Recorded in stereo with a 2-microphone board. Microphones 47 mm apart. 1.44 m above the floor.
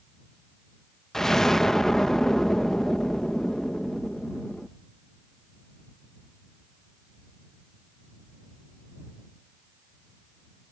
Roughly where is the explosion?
Centre.